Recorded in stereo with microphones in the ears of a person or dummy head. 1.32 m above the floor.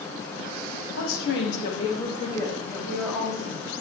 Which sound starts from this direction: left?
A woman speaking, at 1.0 s.